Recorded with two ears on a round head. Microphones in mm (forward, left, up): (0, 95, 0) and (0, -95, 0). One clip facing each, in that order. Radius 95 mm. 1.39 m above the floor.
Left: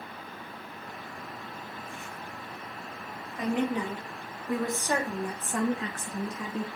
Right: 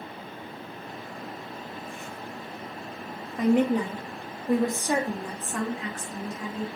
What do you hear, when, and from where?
3.4 s a woman speaking: 40° right (ahead or behind), 1.3 m; by 6.7 s 70° left (ahead or behind), 0.7 m